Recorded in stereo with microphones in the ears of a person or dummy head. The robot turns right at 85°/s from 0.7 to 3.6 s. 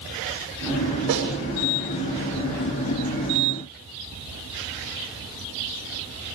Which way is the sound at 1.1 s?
60° right (ahead or behind).